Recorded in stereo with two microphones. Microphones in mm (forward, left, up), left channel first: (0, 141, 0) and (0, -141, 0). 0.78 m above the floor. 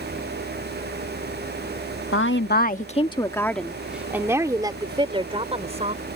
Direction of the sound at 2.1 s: 50° left (ahead or behind).